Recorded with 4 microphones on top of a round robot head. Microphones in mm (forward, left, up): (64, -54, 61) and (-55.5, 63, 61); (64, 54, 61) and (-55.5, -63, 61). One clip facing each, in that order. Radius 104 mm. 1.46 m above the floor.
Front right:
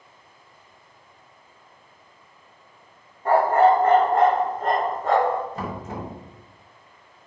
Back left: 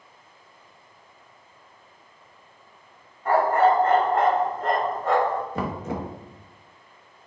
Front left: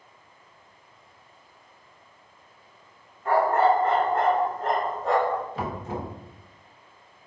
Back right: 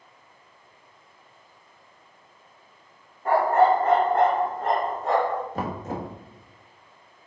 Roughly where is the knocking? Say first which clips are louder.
Back left 3 dB, back right 1 dB; behind.